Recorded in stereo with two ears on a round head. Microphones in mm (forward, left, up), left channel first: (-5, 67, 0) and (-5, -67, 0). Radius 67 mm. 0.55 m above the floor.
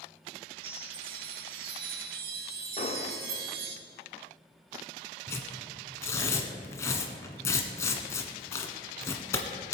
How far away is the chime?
About 1.4 m.